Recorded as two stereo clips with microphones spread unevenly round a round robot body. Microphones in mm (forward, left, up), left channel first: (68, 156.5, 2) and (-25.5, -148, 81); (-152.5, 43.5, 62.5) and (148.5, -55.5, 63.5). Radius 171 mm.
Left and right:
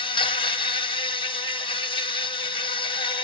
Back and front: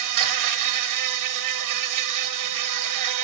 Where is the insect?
5° left, 1.8 m.